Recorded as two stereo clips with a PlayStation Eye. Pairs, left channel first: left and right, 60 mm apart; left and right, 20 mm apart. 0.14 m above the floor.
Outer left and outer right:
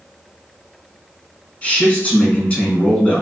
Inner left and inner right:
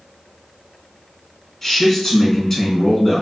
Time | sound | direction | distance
1.6 | a man speaking | 20° left (ahead or behind) | 1.3 m